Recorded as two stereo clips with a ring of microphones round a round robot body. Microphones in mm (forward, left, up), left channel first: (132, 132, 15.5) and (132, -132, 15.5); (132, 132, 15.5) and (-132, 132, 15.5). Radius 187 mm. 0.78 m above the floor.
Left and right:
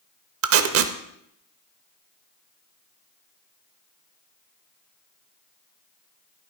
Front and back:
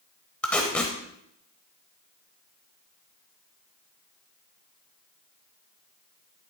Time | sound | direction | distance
0.4 | tape being pulled | 85° right | 0.7 m